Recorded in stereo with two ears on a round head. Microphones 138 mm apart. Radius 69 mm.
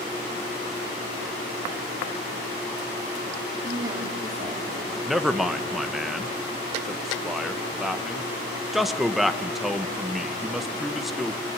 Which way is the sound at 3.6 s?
25° right (ahead or behind).